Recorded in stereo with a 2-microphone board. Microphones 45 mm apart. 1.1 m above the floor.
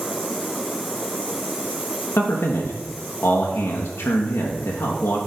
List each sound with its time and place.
2.2 s a man speaking: 75° left (ahead or behind), 0.8 m